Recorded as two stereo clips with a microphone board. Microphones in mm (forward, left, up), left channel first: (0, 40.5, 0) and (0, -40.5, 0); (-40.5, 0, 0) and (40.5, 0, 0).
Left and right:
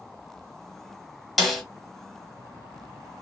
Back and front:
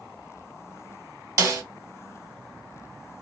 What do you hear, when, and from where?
1.4 s a snare drum: straight ahead, 1.2 m